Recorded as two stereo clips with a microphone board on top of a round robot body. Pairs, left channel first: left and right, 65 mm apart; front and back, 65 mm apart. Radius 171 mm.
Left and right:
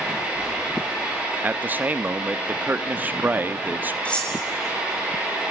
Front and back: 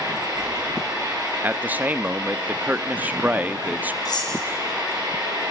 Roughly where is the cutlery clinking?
Ahead.